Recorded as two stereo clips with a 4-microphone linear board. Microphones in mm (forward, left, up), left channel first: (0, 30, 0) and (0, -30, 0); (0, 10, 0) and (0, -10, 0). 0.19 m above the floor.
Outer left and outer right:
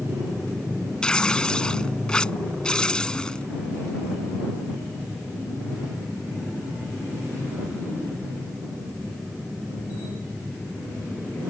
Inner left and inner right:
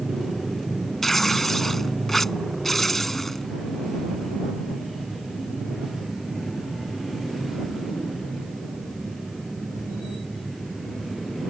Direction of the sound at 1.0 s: 15° left (ahead or behind).